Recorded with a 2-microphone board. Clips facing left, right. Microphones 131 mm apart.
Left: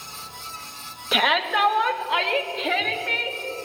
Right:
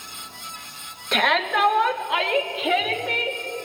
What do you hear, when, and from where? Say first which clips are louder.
1.1 s a shout: right 1 dB; 5° left (ahead or behind), 2 m; by 3.4 s 10° right (ahead or behind), 3 m